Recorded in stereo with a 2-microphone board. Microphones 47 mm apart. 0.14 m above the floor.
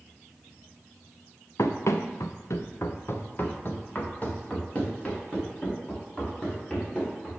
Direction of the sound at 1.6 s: 70° left (ahead or behind).